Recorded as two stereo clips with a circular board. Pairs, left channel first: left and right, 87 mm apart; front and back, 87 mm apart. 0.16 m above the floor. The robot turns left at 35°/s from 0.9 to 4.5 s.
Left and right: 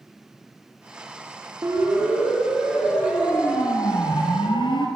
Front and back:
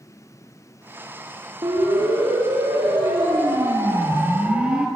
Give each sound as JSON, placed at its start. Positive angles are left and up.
{"t": 1.6, "sound": "a siren", "azimuth_deg": -140, "distance_m": 7.5}